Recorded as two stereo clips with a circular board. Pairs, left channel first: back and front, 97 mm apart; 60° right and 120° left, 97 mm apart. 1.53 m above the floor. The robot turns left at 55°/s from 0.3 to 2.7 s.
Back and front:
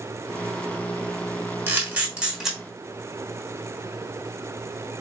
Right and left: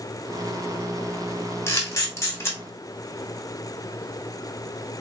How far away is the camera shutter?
About 1.0 m.